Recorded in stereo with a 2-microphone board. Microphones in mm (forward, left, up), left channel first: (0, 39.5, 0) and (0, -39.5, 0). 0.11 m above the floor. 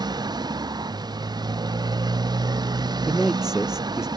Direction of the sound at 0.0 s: 60° right (ahead or behind).